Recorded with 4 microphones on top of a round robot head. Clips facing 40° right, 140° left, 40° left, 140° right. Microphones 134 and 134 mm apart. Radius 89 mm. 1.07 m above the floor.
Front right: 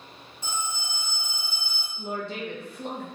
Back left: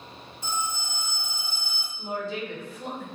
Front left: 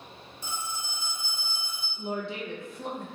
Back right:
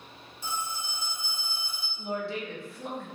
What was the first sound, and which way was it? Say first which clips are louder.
A phone ringing: back left 2 dB, back right 2 dB; 30° left.